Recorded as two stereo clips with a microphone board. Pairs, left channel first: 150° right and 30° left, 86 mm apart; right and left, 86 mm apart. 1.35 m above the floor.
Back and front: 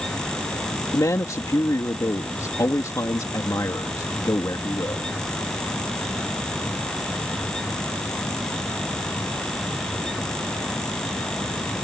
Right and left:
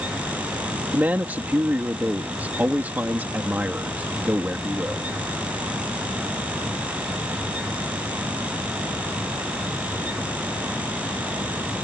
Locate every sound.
0.9 s a man speaking: 160° left